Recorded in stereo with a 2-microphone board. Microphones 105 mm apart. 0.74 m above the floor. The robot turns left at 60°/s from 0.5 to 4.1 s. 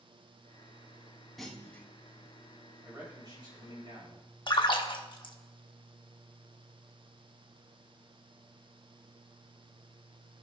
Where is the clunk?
Centre (ahead or behind), 1.0 m; by 1.9 s 20° left (ahead or behind), 1.0 m.